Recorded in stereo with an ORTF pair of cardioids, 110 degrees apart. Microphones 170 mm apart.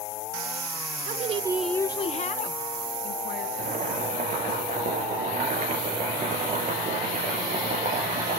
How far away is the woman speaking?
About 0.9 m.